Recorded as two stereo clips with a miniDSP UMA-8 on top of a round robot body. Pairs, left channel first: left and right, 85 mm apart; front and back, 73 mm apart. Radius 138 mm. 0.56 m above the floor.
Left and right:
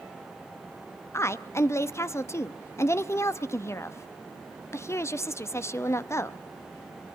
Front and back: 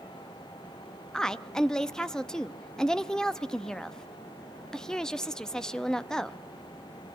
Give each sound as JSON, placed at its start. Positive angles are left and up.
{"t": 1.1, "sound": "a woman speaking", "azimuth_deg": 75, "distance_m": 0.8}